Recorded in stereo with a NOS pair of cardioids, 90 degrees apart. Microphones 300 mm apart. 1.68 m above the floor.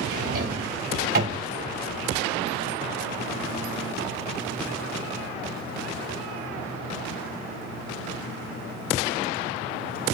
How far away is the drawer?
About 3 m.